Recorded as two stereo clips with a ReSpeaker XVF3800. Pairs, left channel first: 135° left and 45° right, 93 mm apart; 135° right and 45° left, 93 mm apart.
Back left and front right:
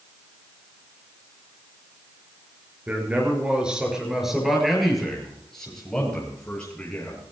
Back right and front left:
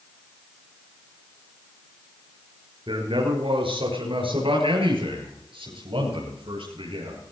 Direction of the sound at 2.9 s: 25° left.